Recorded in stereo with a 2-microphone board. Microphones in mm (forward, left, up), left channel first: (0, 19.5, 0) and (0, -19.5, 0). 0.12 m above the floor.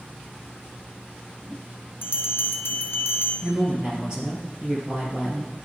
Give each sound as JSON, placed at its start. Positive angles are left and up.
{"t": 2.0, "sound": "a bell", "side_deg": 80, "distance_m": 0.7}
{"t": 3.4, "sound": "a woman speaking", "side_deg": -25, "distance_m": 3.0}